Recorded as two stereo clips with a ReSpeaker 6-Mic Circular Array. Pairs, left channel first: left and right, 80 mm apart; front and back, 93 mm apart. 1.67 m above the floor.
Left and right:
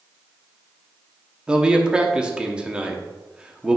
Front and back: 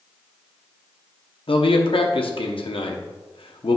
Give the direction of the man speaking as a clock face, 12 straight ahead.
12 o'clock.